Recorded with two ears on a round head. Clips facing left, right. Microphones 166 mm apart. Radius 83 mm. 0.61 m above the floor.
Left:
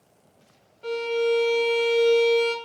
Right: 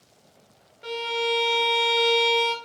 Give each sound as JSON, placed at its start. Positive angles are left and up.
{"t": 0.8, "sound": "a violin", "side_deg": -15, "distance_m": 0.5}